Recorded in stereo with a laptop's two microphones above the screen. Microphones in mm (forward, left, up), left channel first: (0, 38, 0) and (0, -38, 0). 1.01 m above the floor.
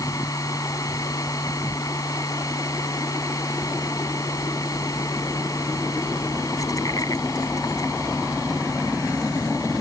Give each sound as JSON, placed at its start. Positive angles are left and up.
{"t": 0.0, "sound": "a machine running", "side_deg": 50}